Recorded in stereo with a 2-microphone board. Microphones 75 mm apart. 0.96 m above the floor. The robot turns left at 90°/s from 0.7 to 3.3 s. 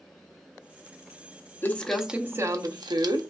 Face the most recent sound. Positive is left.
turn(degrees=-120)